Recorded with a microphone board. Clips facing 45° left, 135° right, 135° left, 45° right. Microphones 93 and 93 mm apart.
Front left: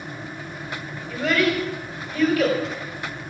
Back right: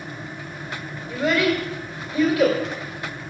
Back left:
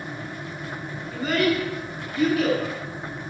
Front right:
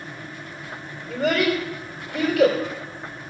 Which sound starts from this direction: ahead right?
A child speaking, at 1.1 s.